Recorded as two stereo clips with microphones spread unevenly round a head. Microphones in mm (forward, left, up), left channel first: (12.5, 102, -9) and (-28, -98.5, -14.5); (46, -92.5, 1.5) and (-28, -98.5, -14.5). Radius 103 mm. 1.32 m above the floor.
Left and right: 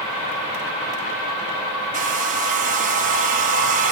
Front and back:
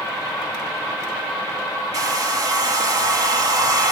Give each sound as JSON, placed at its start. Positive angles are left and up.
{"t": 1.9, "sound": "a hair dryer", "azimuth_deg": -150, "distance_m": 1.2}